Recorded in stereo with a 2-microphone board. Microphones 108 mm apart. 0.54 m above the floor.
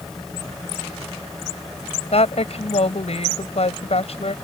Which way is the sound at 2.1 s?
70° left (ahead or behind).